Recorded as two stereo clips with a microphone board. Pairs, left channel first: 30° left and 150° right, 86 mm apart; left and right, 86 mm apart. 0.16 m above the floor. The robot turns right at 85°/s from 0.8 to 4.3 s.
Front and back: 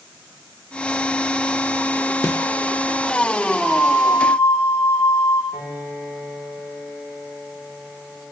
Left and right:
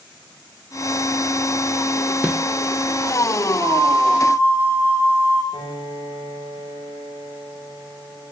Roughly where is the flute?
Right.